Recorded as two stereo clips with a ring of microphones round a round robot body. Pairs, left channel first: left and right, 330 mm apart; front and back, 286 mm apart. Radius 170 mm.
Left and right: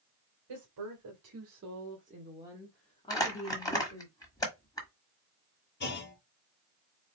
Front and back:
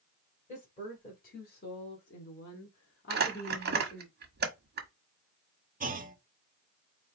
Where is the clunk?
130° left, 1.1 m.